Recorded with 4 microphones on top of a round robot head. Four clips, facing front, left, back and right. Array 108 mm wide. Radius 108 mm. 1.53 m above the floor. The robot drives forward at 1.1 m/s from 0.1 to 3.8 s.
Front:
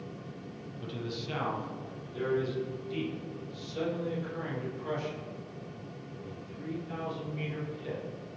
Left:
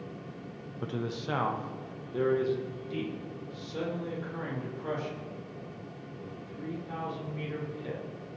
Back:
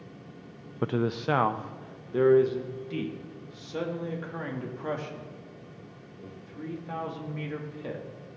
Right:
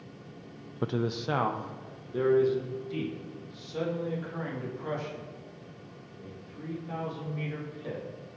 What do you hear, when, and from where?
0.8 s a man speaking: 155° right, 0.5 m; by 8.0 s 175° right, 4 m